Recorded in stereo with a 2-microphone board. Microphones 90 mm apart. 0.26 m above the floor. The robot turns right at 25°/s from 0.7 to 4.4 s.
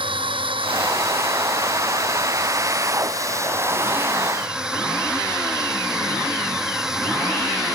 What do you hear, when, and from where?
0.0 s a drone: 70° right (ahead or behind); by 7.8 s 5° right (ahead or behind)